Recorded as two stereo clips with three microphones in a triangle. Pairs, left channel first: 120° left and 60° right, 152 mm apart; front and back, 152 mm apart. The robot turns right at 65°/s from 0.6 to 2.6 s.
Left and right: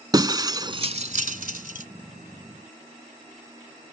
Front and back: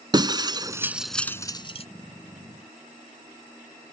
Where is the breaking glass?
120° right; by 1.9 s 40° right.